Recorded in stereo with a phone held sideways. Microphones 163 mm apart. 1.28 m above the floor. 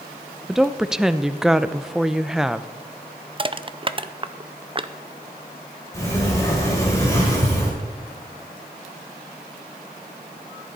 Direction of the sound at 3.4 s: 35° right (ahead or behind).